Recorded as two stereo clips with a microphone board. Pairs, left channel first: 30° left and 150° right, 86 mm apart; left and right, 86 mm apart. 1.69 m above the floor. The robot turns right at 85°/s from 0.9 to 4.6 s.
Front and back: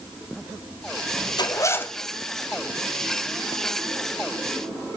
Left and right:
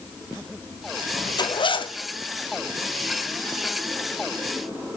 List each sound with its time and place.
1.4 s a zipper: 60° left, 0.7 m; by 2.0 s 110° left, 0.7 m